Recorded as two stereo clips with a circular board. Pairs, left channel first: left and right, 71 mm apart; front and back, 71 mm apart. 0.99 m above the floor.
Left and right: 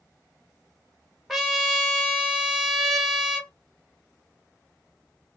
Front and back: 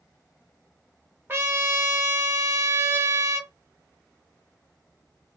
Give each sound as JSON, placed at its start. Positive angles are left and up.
{"t": 1.3, "sound": "a trumpet", "azimuth_deg": 180, "distance_m": 0.7}